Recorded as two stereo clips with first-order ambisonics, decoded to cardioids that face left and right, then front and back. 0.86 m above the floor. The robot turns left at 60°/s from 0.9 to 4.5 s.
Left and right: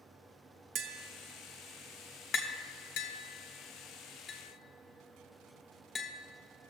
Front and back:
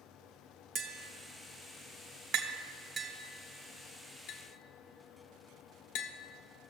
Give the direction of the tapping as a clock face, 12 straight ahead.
4 o'clock.